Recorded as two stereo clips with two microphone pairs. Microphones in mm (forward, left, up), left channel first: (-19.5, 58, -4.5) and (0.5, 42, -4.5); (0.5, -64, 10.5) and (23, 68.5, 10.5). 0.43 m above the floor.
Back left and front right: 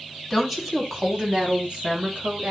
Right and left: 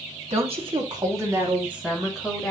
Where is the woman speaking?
50° left, 2.5 m; by 2.5 s 10° right, 4 m.